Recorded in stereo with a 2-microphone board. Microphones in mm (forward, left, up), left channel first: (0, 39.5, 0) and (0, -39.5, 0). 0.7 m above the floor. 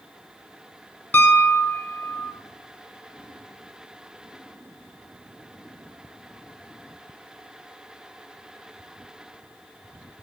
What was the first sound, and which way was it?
A piano, 25° left (ahead or behind).